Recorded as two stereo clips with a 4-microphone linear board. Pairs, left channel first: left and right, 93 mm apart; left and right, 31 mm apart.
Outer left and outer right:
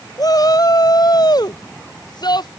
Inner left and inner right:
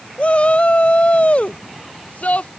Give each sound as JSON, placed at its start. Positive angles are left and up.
{"t": 0.2, "sound": "a shout", "side_deg": 40}